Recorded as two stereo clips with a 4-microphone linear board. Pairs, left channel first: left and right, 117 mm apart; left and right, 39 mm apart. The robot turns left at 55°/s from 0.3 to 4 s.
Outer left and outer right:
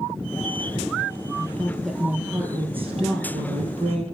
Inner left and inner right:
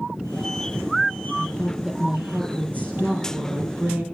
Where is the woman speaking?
25° left, 5 m; by 4.0 s 120° right, 5 m.